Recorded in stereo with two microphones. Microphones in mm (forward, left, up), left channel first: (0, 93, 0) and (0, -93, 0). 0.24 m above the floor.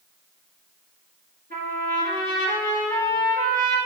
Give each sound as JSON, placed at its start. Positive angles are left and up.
{"t": 1.5, "sound": "a trumpet", "side_deg": -60, "distance_m": 2.5}